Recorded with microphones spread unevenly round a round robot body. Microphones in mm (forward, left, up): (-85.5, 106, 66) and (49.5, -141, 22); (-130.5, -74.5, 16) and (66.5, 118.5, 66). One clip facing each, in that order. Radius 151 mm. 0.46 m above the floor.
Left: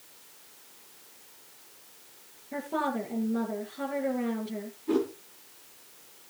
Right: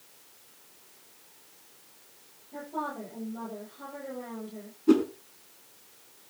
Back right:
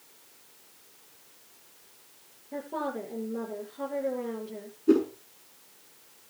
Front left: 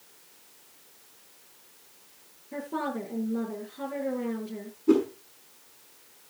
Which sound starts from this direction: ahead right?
A whoosh, at 4.9 s.